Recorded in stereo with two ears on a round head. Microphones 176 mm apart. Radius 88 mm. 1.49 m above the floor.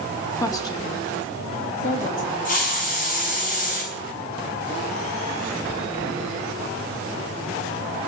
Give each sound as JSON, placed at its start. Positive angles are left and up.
{"t": 0.4, "sound": "a woman speaking", "side_deg": 15, "distance_m": 2.0}
{"t": 2.5, "sound": "a hiss", "side_deg": 45, "distance_m": 5.0}